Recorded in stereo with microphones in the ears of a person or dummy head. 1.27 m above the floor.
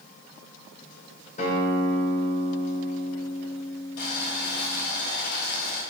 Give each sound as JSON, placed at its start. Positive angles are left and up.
{"t": 1.4, "sound": "a guitar", "side_deg": 40, "distance_m": 1.8}
{"t": 4.0, "sound": "boiling", "side_deg": 55, "distance_m": 2.0}